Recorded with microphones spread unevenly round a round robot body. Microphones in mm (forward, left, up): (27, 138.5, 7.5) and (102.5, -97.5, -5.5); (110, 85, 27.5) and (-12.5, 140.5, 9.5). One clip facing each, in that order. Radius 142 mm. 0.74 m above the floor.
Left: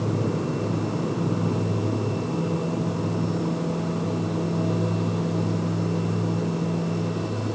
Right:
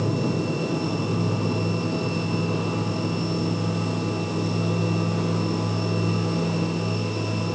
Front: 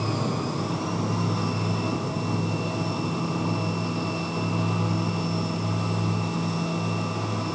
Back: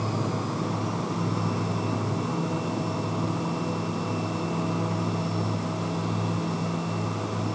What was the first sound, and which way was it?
Only background noise.